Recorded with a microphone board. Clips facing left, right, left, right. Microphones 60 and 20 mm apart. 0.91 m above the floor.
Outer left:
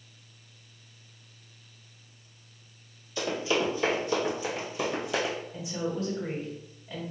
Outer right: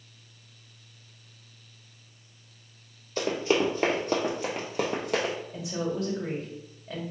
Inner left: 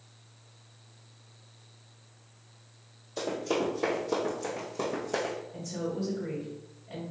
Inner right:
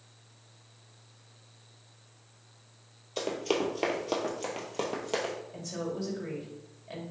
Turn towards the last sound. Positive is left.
turn(degrees=-70)  # may be behind; listen again after turning